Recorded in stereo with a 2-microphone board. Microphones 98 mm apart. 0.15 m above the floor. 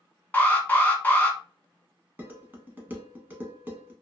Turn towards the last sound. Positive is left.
turn(degrees=-20)  # may be behind; listen again after turning